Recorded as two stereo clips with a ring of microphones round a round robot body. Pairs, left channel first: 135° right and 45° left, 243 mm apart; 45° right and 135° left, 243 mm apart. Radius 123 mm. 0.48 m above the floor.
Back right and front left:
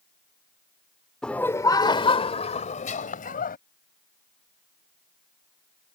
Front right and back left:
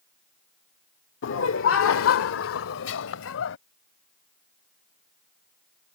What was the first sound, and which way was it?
Laughter, 50° right.